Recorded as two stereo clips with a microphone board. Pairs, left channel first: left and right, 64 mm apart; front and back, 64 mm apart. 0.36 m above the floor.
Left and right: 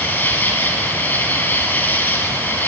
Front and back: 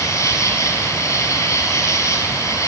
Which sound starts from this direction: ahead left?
An insect, at 0.0 s.